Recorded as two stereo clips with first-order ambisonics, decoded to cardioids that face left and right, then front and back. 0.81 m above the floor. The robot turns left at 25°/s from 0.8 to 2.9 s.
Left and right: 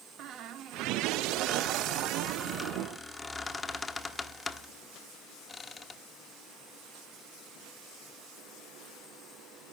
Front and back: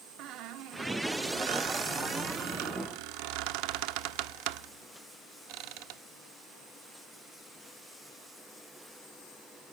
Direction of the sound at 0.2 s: 140° right.